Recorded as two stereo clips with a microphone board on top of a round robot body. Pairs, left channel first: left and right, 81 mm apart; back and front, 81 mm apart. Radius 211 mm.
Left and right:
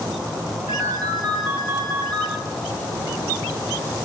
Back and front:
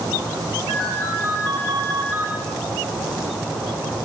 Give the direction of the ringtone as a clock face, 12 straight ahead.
2 o'clock.